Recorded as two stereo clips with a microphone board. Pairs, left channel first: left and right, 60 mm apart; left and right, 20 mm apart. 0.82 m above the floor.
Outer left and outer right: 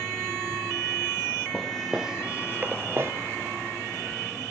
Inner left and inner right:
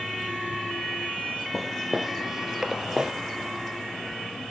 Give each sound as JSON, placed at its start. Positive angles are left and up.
{"t": 1.5, "sound": "footsteps", "side_deg": 5, "distance_m": 1.2}